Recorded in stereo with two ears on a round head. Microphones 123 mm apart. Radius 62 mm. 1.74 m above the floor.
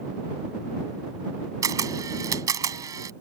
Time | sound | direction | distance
1.6 | a camera shutter | 25° right (ahead or behind) | ?